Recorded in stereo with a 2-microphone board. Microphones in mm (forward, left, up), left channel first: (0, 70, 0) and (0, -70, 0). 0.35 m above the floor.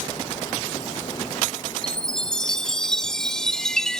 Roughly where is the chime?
Centre.